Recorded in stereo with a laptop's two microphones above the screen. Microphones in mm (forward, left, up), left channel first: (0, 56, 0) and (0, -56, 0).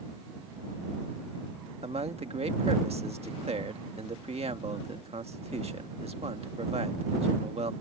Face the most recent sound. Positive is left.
turn(degrees=-65)  # may be behind; listen again after turning